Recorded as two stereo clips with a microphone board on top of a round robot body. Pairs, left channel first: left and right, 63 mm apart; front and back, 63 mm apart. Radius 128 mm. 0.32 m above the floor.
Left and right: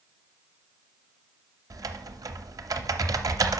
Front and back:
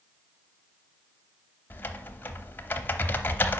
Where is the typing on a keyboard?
60° right, 0.7 m.